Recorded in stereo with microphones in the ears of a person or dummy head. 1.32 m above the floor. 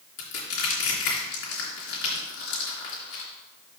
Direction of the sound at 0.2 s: 65° left (ahead or behind).